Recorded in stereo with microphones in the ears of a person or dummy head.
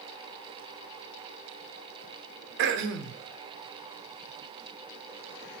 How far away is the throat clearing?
About 0.9 m.